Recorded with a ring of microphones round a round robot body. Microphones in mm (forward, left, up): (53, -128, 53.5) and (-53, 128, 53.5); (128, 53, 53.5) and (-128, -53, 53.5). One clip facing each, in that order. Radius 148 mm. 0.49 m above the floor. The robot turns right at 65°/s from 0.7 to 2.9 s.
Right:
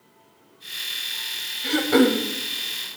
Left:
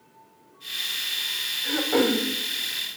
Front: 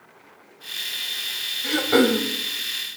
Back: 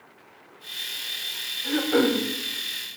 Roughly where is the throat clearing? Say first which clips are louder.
Right 5 dB, front 3 dB; ahead right.